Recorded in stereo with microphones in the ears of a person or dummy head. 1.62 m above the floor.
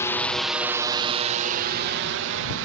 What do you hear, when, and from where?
0.0 s a drone: 10° left (ahead or behind); by 2.7 s 70° right (ahead or behind)